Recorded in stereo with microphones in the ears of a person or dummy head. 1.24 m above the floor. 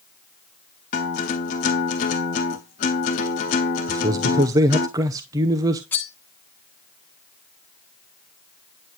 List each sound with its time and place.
0.9 s a guitar: 25° left (ahead or behind), 0.7 m
3.9 s a man speaking: 20° right (ahead or behind), 0.8 m
5.9 s cutlery clinking: 10° left (ahead or behind), 1.2 m